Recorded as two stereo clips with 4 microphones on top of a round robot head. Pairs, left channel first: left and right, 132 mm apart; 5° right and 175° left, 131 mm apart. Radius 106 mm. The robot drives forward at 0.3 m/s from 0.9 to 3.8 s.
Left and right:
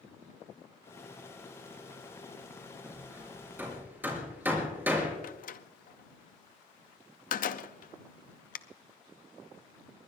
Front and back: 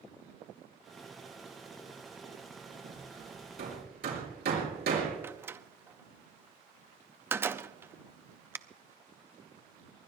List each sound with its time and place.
2.8 s hammering: 165° right, 5 m
5.2 s a door slam: 100° left, 0.8 m